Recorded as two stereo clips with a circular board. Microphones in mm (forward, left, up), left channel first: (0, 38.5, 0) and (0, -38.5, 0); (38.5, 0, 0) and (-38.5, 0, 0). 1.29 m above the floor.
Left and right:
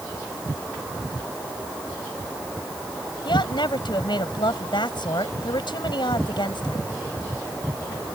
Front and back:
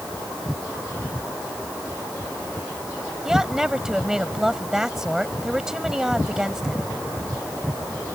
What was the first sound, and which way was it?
A woman speaking, 95° left.